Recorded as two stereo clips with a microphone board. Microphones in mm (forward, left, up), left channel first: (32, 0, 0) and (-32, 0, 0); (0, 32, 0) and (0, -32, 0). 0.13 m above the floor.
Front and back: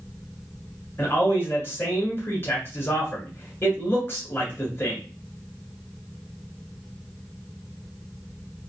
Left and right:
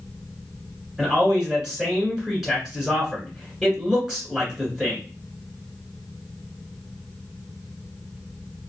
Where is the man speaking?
10° right, 1.5 m.